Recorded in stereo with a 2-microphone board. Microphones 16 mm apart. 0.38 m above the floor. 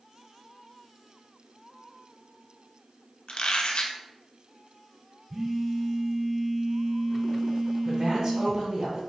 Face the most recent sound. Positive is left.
turn(degrees=-45)  # may be behind; listen again after turning